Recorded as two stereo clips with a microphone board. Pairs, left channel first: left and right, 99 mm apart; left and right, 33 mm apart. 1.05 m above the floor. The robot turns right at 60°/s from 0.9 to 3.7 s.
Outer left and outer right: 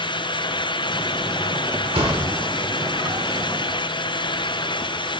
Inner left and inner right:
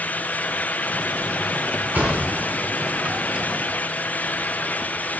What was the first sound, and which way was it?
A thud, 80° right.